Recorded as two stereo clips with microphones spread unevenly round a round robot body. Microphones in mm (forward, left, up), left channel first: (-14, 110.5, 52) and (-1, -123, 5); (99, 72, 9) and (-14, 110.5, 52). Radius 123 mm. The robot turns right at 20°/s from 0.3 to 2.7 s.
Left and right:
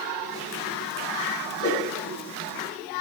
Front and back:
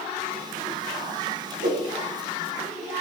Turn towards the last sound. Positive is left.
turn(degrees=165)